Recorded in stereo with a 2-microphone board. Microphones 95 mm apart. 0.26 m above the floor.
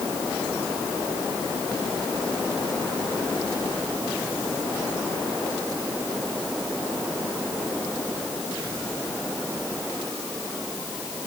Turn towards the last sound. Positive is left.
No sound to turn to.